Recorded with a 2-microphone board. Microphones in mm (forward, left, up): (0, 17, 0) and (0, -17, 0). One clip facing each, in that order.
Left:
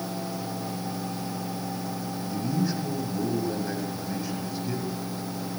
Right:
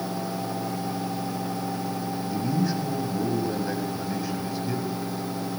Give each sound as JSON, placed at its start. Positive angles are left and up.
{"t": 2.3, "sound": "a man speaking", "side_deg": 0, "distance_m": 8.0}